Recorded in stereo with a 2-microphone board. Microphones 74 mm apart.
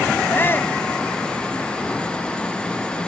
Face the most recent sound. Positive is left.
turn(degrees=30)  # may be behind; listen again after turning